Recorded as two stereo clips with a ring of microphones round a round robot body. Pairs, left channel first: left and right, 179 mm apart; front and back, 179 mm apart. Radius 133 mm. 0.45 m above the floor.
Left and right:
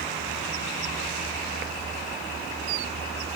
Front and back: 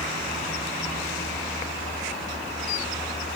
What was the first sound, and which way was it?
Only background noise.